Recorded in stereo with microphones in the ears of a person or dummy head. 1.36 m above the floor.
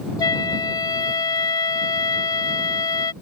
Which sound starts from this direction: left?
A flute, at 0.2 s.